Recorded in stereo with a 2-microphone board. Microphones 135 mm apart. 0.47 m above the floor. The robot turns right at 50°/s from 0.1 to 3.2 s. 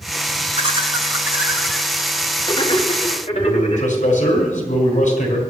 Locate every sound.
0.6 s laughter: 50° right (ahead or behind), 2.5 m; by 4.0 s 60° left (ahead or behind), 2.5 m
3.3 s a man speaking: 70° left (ahead or behind), 4.5 m